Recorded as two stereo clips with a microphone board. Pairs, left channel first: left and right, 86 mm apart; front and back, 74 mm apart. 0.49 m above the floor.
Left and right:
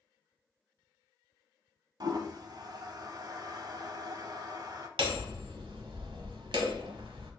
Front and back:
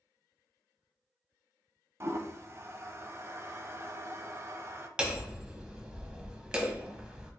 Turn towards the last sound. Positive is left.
turn(degrees=-100)